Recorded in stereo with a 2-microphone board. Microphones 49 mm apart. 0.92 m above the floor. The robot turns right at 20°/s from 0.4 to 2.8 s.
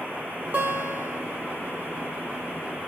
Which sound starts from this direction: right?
A guitar, at 0.5 s.